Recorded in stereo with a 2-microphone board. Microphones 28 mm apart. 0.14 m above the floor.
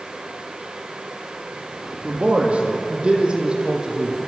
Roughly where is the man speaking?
Right.